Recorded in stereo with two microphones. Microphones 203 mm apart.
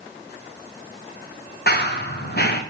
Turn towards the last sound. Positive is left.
turn(degrees=50)  # may be behind; listen again after turning